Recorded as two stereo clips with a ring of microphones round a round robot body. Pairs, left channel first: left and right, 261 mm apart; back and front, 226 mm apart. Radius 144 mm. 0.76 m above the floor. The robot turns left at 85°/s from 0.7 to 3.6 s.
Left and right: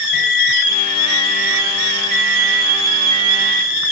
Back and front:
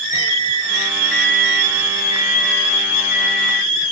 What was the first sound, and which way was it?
A microwave, 60° left.